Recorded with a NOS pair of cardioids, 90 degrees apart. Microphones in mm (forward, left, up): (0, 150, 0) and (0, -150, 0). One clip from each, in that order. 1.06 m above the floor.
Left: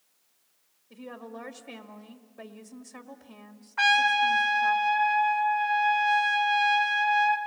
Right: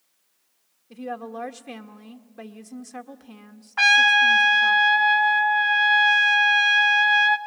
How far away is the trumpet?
About 1.3 m.